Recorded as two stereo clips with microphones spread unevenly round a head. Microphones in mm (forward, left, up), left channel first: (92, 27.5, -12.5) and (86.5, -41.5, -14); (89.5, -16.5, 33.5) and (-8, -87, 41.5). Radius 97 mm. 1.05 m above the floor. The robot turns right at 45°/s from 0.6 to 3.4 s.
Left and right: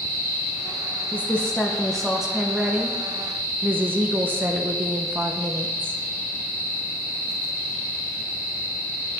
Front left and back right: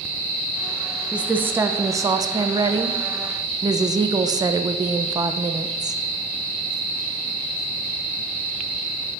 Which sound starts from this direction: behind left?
A woman speaking, at 1.1 s.